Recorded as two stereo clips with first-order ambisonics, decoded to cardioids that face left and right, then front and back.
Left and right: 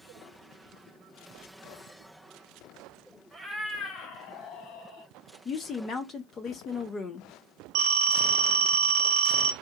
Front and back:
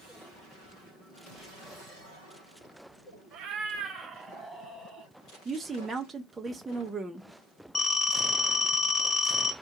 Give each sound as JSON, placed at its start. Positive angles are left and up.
{"t": 3.3, "sound": "a cat meowing", "azimuth_deg": -170, "distance_m": 0.8}
{"t": 5.5, "sound": "a woman speaking", "azimuth_deg": 115, "distance_m": 0.5}
{"t": 7.8, "sound": "a phone ringing", "azimuth_deg": -70, "distance_m": 0.9}